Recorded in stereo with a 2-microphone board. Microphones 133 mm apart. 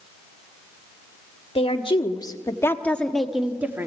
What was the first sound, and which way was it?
A woman speaking, 45° left (ahead or behind).